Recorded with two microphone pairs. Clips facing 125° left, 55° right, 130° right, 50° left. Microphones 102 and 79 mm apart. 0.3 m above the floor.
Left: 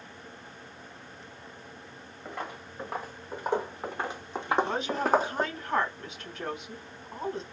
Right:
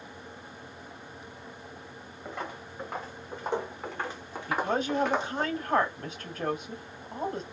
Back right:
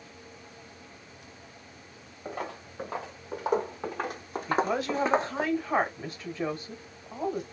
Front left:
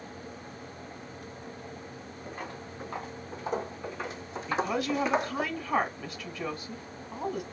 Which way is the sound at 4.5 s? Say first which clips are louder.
Even, back right 2 dB; 90° right.